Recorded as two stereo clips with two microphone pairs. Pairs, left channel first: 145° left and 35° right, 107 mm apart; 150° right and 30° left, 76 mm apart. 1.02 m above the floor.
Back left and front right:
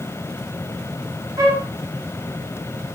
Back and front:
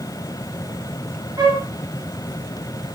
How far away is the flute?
About 1.2 m.